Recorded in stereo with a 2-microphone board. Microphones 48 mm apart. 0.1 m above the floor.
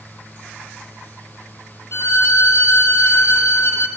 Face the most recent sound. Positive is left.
turn(degrees=70)  # may be behind; listen again after turning